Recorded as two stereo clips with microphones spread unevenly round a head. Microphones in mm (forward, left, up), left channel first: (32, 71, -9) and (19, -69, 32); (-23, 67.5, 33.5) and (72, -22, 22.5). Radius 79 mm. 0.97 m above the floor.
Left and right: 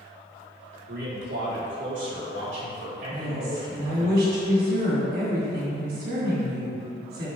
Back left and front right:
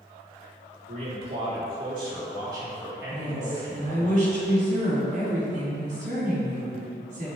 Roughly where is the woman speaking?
Right.